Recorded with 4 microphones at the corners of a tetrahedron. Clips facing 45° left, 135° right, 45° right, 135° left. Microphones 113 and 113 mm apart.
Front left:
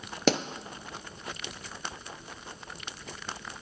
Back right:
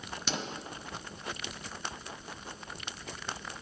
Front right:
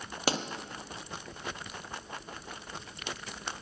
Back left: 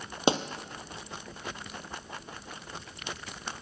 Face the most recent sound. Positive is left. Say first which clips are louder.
# front left 12 dB, back left 6 dB
turn(degrees=65)